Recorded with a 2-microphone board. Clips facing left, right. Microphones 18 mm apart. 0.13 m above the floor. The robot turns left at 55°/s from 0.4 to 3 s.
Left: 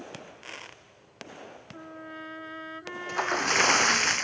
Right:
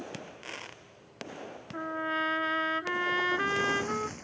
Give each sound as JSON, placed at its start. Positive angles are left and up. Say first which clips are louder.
{"t": 1.7, "sound": "a trumpet", "louder": "right 12 dB", "azimuth_deg": -65}
{"t": 3.1, "sound": "a splash", "louder": "left 4 dB", "side_deg": 75}